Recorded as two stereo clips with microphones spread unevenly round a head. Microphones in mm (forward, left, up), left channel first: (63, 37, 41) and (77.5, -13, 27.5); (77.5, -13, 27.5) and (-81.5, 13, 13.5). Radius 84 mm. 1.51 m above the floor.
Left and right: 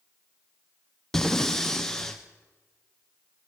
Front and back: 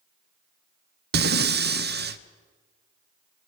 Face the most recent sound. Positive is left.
turn(degrees=-165)